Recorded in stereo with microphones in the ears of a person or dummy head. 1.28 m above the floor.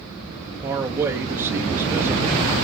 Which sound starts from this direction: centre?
A man speaking, at 0.6 s.